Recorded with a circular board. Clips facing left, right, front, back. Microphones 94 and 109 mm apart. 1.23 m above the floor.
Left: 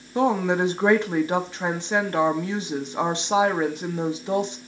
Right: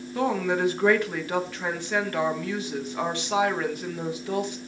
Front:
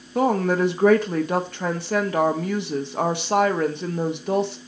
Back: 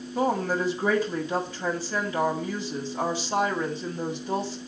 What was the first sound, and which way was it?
A woman speaking, 25° left.